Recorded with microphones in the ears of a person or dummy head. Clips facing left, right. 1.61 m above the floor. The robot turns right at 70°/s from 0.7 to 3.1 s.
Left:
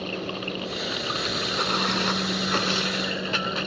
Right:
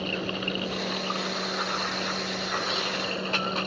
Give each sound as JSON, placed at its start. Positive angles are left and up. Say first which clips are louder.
{"t": 0.0, "sound": "running water", "louder": "even", "azimuth_deg": 0}